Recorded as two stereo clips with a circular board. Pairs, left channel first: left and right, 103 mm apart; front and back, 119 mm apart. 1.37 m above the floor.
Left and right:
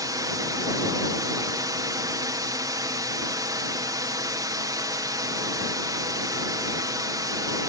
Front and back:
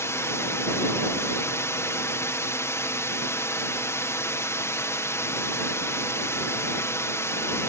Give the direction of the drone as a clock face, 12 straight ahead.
2 o'clock.